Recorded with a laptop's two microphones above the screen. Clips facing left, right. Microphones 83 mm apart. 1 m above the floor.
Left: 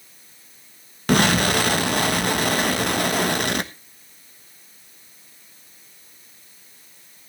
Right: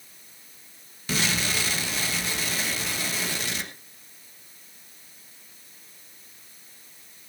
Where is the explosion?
60° left (ahead or behind), 1.3 m.